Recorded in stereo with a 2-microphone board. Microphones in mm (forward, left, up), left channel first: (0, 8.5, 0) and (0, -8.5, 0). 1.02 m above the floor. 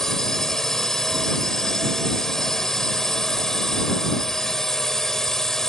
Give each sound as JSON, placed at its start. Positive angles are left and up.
{"t": 0.0, "sound": "a drone", "side_deg": 30}